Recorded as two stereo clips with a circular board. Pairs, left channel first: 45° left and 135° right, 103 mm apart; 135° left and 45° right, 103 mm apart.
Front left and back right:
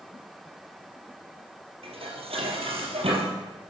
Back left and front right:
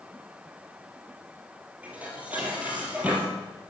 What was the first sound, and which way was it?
Dishes clattering, 120° right.